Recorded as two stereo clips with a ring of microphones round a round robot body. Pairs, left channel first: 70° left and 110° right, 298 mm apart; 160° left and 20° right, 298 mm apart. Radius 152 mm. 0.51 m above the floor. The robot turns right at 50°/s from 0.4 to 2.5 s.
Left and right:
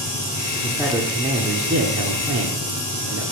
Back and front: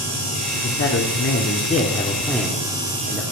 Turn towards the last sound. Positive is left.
turn(degrees=-110)